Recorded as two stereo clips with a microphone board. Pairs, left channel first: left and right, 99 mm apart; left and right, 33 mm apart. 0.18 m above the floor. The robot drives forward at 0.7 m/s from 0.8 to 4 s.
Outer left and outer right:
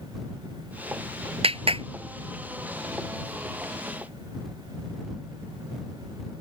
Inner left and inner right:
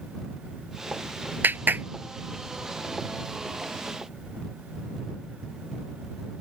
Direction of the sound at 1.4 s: 70° right (ahead or behind).